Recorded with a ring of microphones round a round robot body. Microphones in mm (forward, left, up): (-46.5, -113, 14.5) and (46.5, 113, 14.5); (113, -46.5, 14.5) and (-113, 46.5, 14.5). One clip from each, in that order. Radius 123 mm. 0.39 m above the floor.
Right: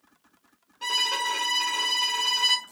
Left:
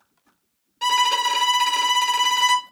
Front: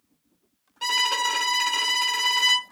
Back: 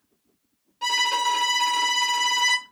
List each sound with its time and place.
0.8 s a violin: 30° left, 1.4 m